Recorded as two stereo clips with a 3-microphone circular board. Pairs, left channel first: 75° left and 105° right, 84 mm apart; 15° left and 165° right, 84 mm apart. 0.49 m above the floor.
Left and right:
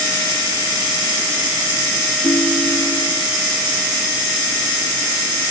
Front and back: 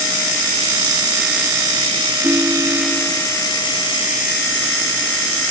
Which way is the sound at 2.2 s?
125° left.